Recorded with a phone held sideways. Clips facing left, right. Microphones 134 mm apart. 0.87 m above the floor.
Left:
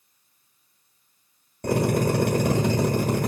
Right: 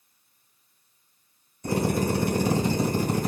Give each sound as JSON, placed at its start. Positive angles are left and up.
{"t": 1.6, "sound": "a drill", "side_deg": 65, "distance_m": 1.4}